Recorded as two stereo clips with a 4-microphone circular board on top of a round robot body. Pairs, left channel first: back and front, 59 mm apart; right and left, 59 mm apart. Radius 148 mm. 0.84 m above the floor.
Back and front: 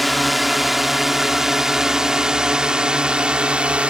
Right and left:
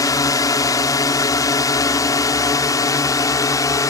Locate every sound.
0.0 s a drone: 90° right; by 3.9 s 70° right